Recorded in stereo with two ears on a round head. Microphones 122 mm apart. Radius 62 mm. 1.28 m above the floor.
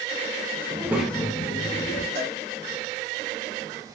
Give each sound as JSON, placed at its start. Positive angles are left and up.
{"t": 0.7, "sound": "a child speaking", "side_deg": -30, "distance_m": 0.7}
{"t": 2.1, "sound": "a cowbell", "side_deg": -25, "distance_m": 1.8}